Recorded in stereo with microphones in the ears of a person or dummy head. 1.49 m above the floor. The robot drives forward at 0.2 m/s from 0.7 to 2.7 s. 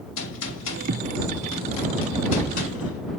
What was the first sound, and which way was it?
A gunshot, 70° left (ahead or behind).